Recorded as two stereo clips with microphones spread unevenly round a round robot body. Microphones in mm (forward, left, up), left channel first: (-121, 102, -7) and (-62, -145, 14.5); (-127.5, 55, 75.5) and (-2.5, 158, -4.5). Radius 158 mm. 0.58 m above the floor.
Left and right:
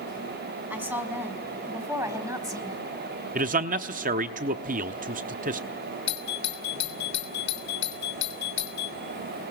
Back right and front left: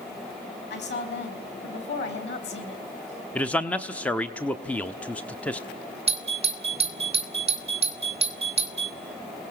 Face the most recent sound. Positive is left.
turn(degrees=60)